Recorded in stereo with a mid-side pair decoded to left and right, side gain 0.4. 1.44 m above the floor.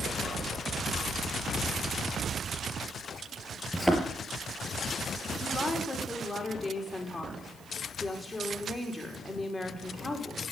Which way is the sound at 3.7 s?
Straight ahead.